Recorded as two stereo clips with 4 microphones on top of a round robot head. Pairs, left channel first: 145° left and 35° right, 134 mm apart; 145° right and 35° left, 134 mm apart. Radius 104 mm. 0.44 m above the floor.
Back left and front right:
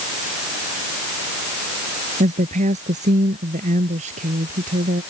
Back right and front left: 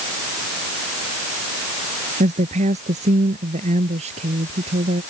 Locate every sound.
2.2 s a woman speaking: straight ahead; by 5.0 s 5° right